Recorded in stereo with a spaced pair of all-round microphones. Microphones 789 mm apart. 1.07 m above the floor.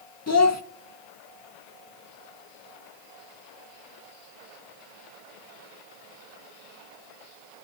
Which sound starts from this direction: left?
A child speaking, at 0.3 s.